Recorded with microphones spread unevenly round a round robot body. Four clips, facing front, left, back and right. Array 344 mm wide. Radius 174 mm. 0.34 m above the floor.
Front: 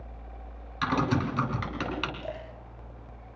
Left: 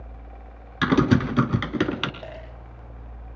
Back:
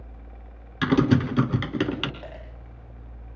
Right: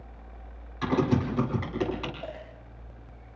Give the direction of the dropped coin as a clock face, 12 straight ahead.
7 o'clock.